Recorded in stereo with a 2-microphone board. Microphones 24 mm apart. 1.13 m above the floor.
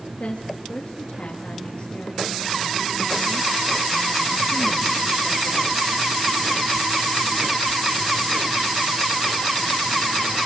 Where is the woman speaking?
65° left (ahead or behind), 2 m.